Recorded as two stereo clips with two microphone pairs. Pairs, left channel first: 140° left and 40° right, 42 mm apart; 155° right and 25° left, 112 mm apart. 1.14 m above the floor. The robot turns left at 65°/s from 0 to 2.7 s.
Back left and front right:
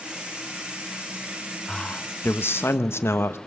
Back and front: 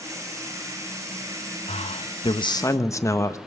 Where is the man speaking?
145° right, 1.2 m; by 3.4 s 145° left, 1.2 m.